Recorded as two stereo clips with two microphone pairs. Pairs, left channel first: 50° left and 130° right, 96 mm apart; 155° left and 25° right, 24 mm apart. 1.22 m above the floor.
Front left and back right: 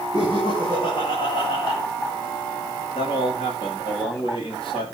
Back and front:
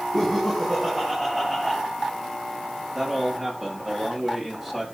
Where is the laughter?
85° left, 7.5 m; by 1.8 s 80° left, 7.5 m.